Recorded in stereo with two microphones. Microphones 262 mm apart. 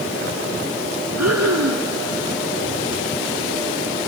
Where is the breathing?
75° right (ahead or behind), 2.0 m.